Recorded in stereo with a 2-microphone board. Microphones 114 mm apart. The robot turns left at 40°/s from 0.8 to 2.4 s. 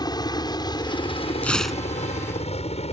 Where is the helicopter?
35° left (ahead or behind); by 2.9 s 65° left (ahead or behind).